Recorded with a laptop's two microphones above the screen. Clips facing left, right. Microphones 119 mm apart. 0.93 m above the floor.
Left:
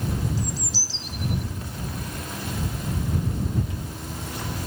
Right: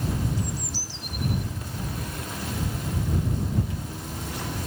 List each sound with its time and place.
0.4 s a bird: 85° left